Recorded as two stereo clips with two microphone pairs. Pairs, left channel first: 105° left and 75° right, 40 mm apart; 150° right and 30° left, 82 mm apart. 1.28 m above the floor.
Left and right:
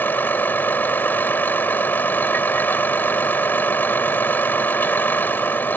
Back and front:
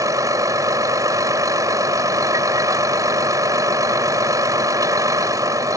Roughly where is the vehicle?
Left.